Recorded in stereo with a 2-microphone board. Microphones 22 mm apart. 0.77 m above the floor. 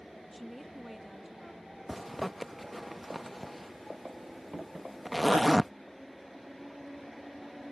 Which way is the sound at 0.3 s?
5° left (ahead or behind).